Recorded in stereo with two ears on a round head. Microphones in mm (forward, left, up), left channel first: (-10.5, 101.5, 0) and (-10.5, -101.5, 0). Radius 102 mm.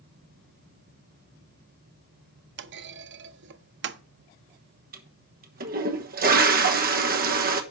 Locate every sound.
2.6 s a clunk: 50° right (ahead or behind), 0.6 m
4.9 s a toilet flushing: 40° right (ahead or behind), 1.2 m